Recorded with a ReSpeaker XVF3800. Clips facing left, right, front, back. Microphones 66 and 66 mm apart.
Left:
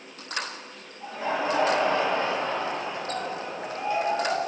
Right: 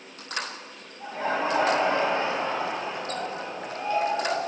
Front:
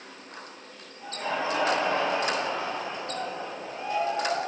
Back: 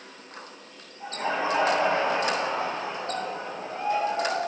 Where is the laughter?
125° right, 2 m; by 4.4 s 155° left, 2.5 m.